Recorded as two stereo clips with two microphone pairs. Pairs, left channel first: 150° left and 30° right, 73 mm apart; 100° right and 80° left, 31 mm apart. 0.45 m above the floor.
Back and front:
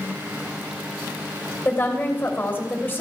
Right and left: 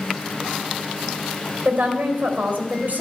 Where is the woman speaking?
90° left, 2.5 m.